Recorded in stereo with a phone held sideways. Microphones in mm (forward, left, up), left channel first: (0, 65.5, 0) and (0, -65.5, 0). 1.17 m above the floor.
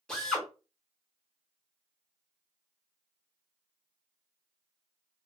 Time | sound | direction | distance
0.1 | a drill | 5° left (ahead or behind) | 1.1 m